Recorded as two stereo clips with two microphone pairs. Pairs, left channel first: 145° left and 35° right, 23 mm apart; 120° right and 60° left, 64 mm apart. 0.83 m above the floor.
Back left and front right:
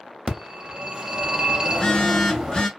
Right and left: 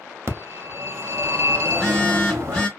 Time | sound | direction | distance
0.3 | a phone ringing | 20° left | 0.5 m
1.6 | a phone buzzing | 175° right | 0.9 m